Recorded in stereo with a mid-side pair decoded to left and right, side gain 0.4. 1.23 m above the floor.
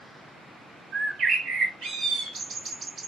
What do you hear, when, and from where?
0.9 s a bird: 70° right, 1.2 m